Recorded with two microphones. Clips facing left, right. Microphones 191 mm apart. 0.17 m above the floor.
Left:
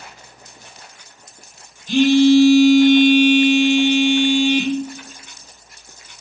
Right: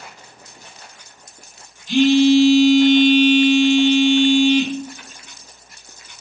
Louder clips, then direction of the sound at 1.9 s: Left 1 dB; 50° left (ahead or behind).